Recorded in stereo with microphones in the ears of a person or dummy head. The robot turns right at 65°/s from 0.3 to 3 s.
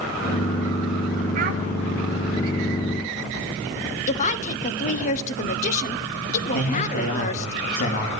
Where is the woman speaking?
45° left (ahead or behind), 1.1 m.